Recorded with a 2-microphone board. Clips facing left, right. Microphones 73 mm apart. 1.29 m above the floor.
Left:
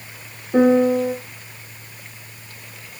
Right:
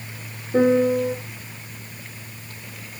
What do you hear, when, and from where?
0.5 s a piano: 55° left (ahead or behind), 1.2 m